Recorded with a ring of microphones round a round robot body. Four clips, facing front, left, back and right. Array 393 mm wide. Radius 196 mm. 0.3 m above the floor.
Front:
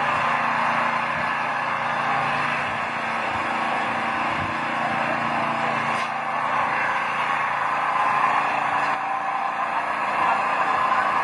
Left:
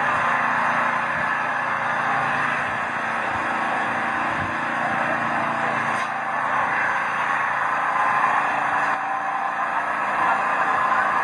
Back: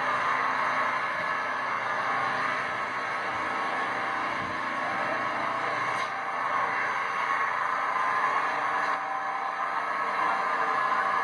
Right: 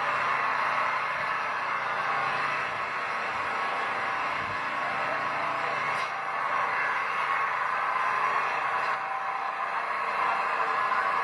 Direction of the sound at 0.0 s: 50° left.